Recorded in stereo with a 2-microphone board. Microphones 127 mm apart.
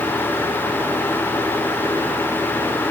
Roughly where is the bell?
No bell in this recording.